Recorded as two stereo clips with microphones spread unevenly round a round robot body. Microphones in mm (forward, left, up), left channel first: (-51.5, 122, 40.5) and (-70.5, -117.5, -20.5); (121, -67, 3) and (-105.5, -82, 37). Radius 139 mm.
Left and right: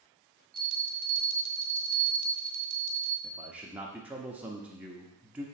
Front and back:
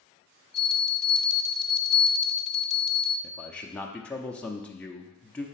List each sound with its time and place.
0.5 s a bell: 85° right, 1.4 m
3.2 s a man speaking: 55° right, 0.7 m